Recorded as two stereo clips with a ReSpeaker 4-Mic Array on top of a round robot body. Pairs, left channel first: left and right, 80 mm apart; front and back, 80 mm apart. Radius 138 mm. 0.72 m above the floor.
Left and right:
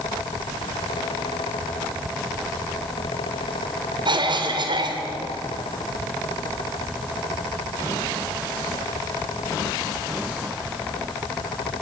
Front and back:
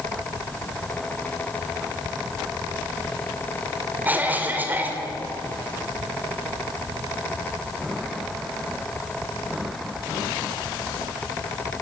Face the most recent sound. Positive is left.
turn(degrees=-110)